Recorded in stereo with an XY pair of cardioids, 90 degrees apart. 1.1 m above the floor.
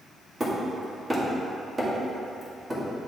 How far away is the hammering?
About 2 m.